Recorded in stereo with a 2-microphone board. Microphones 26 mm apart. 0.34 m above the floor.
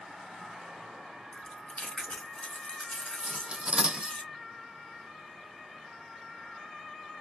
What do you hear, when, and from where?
1.3 s chewing: 40° left (ahead or behind), 1.8 m
3.2 s cutlery clinking: 40° right (ahead or behind), 0.5 m